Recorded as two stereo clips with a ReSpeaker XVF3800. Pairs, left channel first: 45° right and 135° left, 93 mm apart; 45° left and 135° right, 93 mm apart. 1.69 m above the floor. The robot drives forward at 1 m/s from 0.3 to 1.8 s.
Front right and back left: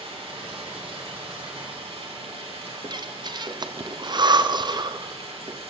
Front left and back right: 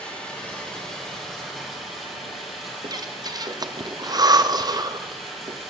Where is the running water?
120° left, 5.5 m; by 5.7 s 135° left, 6 m.